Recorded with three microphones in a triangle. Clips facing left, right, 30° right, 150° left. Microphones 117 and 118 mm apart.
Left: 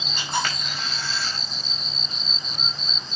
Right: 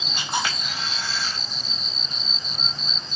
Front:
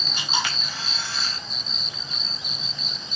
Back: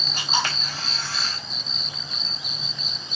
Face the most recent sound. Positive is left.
turn(degrees=-165)